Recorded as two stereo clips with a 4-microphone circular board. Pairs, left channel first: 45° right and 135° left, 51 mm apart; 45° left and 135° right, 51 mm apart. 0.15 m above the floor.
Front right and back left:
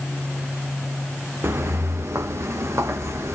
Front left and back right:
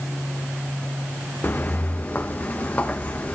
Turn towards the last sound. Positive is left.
turn(degrees=105)